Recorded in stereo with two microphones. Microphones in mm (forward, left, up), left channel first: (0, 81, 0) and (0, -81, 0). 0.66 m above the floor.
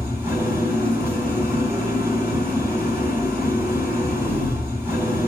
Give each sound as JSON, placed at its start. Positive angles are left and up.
{"t": 0.0, "sound": "an engine running", "side_deg": -20, "distance_m": 3.5}